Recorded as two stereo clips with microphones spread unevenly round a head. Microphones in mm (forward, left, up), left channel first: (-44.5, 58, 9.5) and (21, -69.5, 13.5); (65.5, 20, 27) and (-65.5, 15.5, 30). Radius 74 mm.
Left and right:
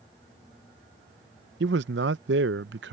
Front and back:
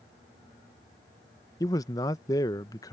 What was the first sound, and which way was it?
A man speaking, 65° right.